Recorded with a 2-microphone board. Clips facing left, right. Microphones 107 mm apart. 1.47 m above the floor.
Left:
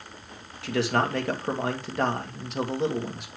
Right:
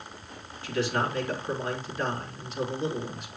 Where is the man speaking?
75° left (ahead or behind), 1.8 m.